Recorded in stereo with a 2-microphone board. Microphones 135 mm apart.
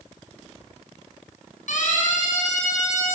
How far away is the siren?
About 8 m.